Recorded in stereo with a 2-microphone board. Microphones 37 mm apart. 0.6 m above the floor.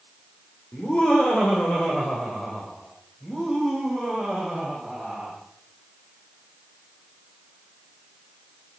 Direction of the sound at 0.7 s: 40° left (ahead or behind).